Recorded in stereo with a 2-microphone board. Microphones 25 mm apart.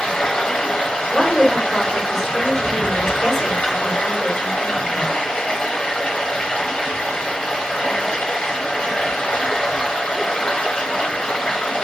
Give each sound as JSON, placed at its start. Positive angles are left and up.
{"t": 0.0, "sound": "running water", "side_deg": 40, "distance_m": 0.8}
{"t": 1.1, "sound": "a woman speaking", "side_deg": 10, "distance_m": 1.3}